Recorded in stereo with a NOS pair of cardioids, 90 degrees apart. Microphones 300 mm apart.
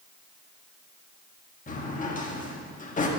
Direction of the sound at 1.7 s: 30° left.